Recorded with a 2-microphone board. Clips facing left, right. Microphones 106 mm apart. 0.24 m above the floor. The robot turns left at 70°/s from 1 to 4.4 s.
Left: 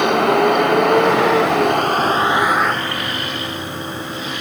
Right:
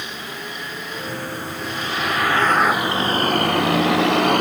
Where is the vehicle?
115° left; by 4.4 s 125° right.